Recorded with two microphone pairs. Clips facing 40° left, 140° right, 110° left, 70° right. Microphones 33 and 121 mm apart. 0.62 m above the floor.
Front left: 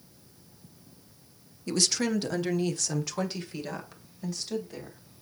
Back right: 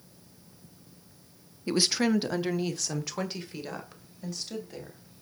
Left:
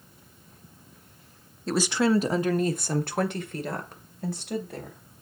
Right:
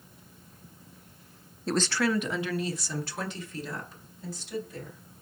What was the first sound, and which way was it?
A woman speaking, 150° right.